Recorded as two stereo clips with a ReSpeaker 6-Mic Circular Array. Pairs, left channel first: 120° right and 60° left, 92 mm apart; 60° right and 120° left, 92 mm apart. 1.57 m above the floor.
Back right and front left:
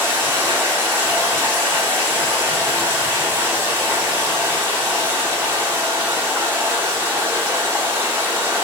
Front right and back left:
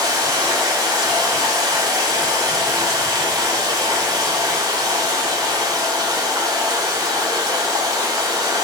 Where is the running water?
120° left, 1.5 m.